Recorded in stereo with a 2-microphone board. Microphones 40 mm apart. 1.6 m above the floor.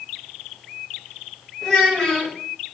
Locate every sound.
1.6 s a child speaking: 10° left (ahead or behind), 1.6 m